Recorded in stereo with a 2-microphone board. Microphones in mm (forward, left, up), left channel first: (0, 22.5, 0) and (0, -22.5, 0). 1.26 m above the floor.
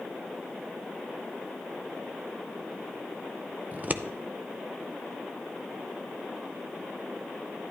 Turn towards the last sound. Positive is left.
turn(degrees=-40)  # may be behind; listen again after turning